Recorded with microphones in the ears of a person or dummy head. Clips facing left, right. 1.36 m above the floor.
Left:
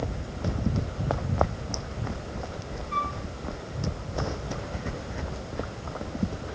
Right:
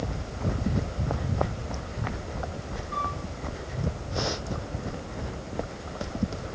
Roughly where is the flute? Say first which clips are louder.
Left 1 dB; left.